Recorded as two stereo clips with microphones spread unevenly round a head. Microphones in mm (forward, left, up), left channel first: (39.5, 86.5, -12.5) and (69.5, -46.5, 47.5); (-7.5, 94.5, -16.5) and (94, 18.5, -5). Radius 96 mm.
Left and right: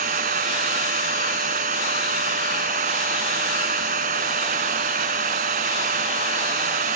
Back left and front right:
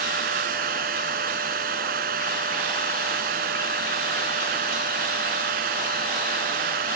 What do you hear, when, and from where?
0.0 s a machine running: 65° right